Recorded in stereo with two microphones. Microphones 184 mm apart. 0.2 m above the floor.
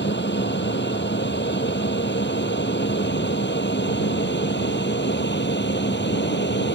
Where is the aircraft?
75° left (ahead or behind).